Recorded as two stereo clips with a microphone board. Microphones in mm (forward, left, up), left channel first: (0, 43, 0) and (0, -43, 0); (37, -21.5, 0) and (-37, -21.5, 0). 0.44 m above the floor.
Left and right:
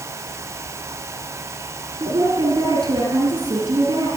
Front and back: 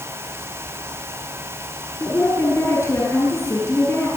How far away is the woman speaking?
About 7.5 m.